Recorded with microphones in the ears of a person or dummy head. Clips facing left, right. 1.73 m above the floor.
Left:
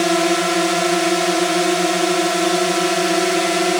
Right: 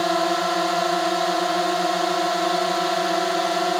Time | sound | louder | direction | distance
0.0 | a drone | left 5 dB | 40° left (ahead or behind) | ?